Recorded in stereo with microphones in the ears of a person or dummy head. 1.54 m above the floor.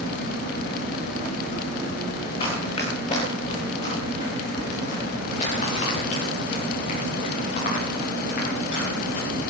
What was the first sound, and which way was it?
Running footsteps, 30° left (ahead or behind).